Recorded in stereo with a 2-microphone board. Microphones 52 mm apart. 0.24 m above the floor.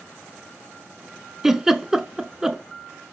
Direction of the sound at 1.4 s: 15° right (ahead or behind).